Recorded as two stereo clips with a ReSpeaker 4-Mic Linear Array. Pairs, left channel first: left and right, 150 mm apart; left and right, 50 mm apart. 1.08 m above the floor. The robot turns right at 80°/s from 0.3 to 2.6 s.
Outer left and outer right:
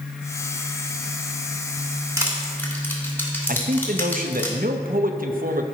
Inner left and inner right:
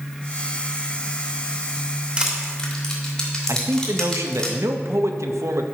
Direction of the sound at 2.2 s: 25° right (ahead or behind).